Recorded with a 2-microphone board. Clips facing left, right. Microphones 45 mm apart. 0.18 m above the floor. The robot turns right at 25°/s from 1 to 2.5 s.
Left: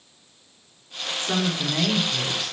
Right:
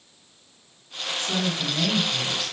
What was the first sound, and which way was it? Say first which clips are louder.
A woman speaking: left 2 dB; 135° left.